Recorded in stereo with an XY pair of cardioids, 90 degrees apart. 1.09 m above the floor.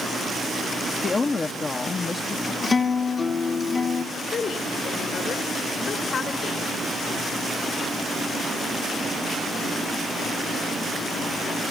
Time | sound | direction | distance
1.0 | a woman speaking | 40° left | 1.0 m
2.6 | a guitar | 35° left | 1.2 m
4.2 | a woman speaking | 60° left | 3.5 m